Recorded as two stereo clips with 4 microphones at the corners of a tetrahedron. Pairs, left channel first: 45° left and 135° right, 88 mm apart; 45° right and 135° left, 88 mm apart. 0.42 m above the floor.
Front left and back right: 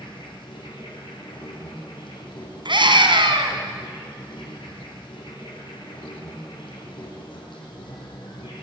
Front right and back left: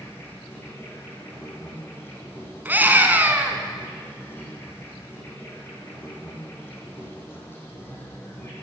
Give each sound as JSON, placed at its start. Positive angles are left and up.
{"t": 0.0, "sound": "an insect", "azimuth_deg": 20, "distance_m": 6.5}
{"t": 2.6, "sound": "a scream", "azimuth_deg": -155, "distance_m": 3.0}